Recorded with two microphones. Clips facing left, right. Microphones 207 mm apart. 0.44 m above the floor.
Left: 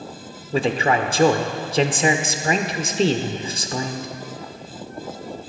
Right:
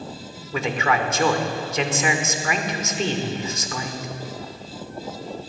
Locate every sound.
0.5 s a man speaking: 30° left (ahead or behind), 0.8 m